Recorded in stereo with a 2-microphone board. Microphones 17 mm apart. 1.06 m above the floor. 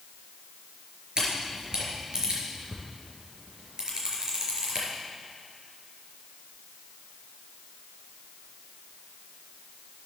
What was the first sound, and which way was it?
A camera shutter, 50° right (ahead or behind).